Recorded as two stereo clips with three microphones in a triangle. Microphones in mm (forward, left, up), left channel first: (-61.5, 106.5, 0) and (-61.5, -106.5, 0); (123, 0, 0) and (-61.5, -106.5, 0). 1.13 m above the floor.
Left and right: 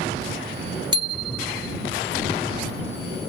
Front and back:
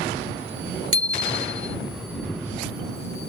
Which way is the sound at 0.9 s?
160° right.